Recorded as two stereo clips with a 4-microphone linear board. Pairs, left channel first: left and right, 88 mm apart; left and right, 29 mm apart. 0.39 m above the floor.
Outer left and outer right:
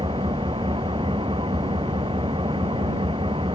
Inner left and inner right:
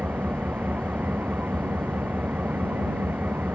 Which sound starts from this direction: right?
An engine running, at 0.0 s.